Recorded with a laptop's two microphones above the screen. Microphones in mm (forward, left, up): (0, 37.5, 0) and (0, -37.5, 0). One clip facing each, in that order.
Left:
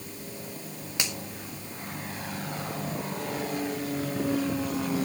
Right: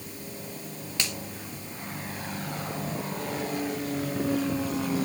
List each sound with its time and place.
1.0 s a finger snap: 20° left (ahead or behind), 1.5 m